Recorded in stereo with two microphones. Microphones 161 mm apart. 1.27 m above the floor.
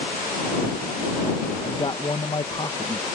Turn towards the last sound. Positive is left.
turn(degrees=30)  # may be behind; listen again after turning